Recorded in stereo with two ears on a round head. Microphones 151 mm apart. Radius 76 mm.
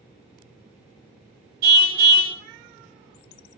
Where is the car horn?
60° right (ahead or behind), 2 m.